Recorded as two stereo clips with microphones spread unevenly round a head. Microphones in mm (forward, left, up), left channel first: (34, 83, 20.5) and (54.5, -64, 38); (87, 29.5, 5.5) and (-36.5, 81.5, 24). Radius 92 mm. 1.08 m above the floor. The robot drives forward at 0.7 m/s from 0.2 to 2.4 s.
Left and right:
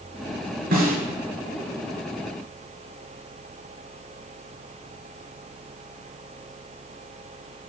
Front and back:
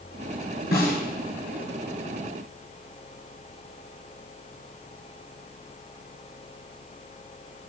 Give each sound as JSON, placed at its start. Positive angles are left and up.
{"t": 0.7, "sound": "a snare drum", "azimuth_deg": -65, "distance_m": 3.0}